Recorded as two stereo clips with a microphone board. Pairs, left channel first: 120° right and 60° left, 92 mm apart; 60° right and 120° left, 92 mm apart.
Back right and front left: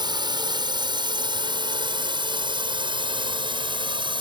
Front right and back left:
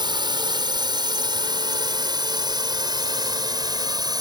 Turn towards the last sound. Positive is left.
turn(degrees=80)